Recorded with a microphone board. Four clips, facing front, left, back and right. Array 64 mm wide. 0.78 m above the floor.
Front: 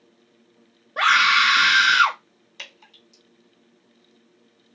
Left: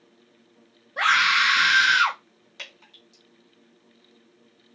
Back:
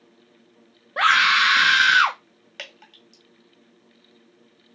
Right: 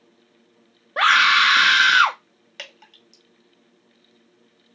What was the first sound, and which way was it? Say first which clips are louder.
A scream: right 4 dB, even; 110° right.